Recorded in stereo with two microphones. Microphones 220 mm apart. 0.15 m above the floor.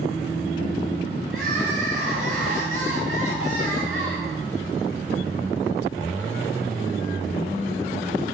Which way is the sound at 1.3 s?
75° right (ahead or behind).